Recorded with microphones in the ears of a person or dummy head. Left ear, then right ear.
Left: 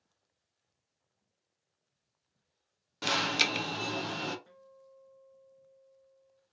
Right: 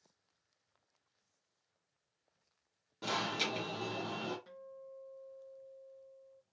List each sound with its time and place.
3.0 s an alarm: 40° left (ahead or behind), 0.7 m
4.5 s a guitar: 20° right (ahead or behind), 0.6 m